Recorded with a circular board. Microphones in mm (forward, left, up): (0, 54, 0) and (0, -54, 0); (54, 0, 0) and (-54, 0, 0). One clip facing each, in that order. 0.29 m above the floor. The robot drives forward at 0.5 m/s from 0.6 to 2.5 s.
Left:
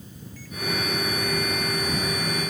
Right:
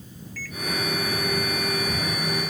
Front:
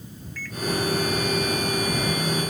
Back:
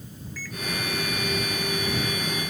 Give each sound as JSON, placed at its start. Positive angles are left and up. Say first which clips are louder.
{"t": 0.4, "sound": "a microwave", "louder": "right 2 dB, front 2 dB", "azimuth_deg": -95}